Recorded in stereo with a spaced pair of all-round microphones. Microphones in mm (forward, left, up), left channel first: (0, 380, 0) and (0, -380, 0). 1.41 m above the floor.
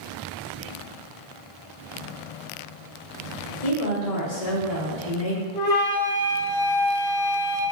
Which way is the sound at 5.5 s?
65° left (ahead or behind).